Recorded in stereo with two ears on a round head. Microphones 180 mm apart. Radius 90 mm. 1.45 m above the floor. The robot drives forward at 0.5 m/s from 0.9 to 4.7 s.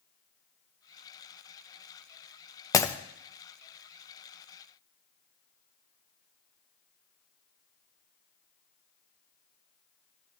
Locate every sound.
2.7 s breaking glass: 15° left (ahead or behind), 0.5 m